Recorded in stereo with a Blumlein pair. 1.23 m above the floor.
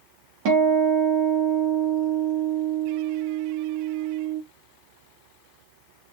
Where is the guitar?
40° right, 0.7 m.